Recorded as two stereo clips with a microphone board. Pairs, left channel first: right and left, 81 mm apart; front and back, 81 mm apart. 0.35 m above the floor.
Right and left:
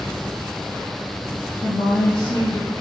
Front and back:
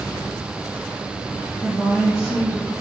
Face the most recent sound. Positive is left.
turn(degrees=-95)